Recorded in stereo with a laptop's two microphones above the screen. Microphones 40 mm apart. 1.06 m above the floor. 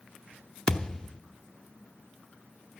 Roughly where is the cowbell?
No cowbell in this recording.